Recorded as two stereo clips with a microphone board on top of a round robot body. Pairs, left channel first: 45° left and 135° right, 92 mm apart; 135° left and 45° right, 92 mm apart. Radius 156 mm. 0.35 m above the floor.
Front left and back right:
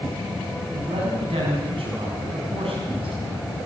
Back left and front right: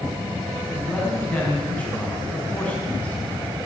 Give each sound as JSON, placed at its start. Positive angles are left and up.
{"t": 0.7, "sound": "a man speaking", "azimuth_deg": -150, "distance_m": 5.5}